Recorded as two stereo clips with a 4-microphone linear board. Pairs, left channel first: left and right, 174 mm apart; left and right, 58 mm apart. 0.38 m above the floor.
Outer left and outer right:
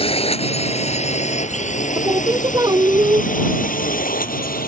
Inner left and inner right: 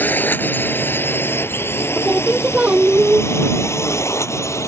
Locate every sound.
0.0 s a drone: 35° left (ahead or behind); by 4.7 s 55° left (ahead or behind)
1.9 s singing: 20° right (ahead or behind)